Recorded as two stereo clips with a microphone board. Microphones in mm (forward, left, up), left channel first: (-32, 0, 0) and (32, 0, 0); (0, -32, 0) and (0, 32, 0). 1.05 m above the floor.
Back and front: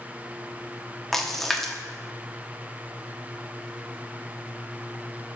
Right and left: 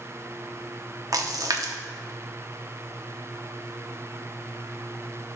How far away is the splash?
About 0.8 m.